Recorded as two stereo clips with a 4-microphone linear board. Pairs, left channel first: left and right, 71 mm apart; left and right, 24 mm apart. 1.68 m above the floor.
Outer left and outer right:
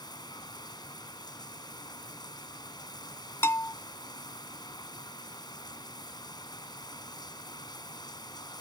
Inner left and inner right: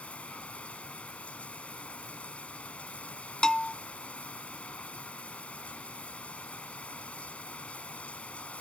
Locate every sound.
0.0 s running water: 80° left
3.4 s a bell: 35° left (ahead or behind)